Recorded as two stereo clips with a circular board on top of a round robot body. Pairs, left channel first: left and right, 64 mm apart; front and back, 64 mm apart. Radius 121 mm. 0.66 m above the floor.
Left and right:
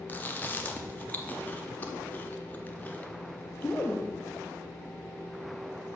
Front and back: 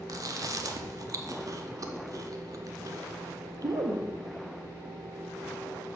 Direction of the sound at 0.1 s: 150° left.